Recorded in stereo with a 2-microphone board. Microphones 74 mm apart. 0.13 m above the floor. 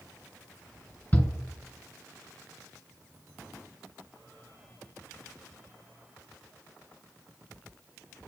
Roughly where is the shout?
Left.